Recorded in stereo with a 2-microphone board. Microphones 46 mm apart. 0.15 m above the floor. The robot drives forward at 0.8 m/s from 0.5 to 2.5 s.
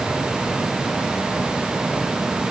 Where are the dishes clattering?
No dishes clattering in this recording.